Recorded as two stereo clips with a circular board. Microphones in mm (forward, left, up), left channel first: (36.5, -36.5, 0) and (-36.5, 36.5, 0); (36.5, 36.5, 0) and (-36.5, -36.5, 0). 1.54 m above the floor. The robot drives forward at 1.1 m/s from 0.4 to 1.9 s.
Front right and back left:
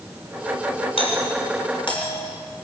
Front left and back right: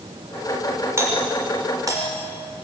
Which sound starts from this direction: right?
A doorbell, at 1.0 s.